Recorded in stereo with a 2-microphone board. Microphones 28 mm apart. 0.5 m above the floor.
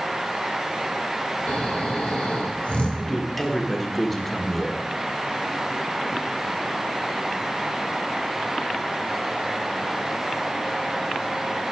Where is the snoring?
45° left (ahead or behind), 1.8 m.